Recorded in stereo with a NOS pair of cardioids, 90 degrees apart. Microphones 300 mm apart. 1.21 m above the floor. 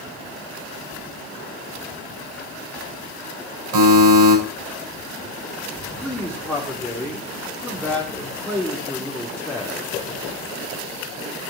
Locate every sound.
3.7 s a buzzer: 70° right, 6.5 m
6.0 s a man speaking: straight ahead, 3 m